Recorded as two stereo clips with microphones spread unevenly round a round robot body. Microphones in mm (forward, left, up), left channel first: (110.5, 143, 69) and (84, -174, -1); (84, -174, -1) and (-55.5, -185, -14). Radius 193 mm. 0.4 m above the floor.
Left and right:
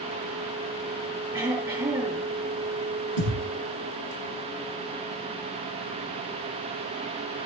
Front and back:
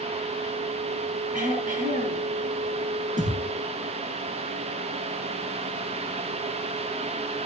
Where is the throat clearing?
175° right, 4.5 m.